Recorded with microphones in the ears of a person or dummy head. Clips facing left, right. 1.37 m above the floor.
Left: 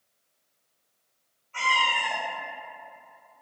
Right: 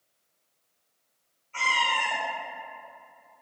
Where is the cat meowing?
30° right (ahead or behind), 1.9 m.